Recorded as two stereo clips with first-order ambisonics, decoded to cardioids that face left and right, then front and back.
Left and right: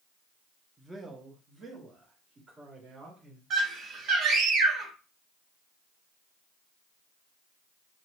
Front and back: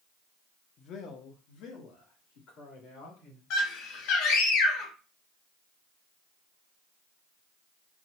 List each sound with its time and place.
0.8 s a man speaking: 5° right, 0.6 m; by 3.4 s 20° right, 2 m
3.5 s a scream: 30° right, 1.4 m